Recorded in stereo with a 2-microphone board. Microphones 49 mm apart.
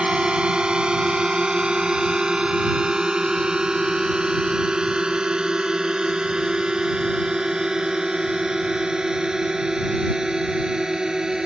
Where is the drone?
20° right (ahead or behind); by 11.5 s 15° right (ahead or behind).